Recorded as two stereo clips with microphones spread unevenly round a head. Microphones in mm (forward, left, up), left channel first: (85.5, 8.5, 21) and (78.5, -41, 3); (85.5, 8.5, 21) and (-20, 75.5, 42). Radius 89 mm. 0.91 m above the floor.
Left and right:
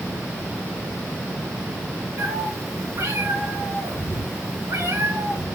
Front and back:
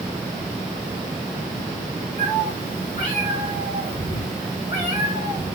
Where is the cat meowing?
85° right, 3.5 m; by 5.5 s 75° right, 6.5 m.